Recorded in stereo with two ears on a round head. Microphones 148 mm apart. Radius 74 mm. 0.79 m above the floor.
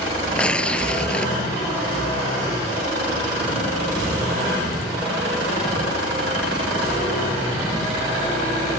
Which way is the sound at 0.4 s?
5° left (ahead or behind).